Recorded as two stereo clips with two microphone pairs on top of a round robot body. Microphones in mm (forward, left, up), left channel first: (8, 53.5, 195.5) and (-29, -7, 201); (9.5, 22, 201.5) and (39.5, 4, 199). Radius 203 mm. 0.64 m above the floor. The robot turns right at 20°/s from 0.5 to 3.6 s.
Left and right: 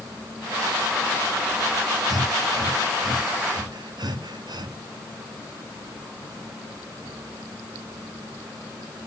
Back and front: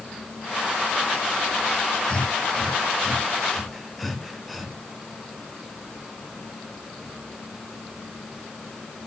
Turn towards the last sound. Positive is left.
turn(degrees=-120)